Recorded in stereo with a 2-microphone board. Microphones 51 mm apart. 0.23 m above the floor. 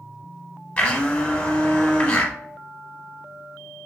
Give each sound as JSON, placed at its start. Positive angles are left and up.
{"t": 0.8, "sound": "a blender", "side_deg": 25, "distance_m": 0.8}